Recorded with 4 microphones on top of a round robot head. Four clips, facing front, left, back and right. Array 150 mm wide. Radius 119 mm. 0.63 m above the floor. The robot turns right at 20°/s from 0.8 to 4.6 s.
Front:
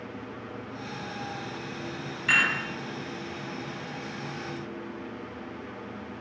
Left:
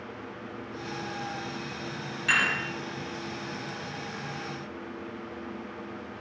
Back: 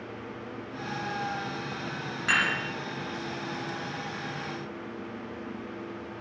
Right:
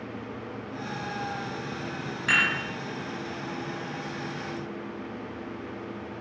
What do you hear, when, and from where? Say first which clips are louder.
2.3 s dishes clattering: right 1 dB, front 1 dB; 145° right, 2.5 m; by 2.5 s 140° right, 2.5 m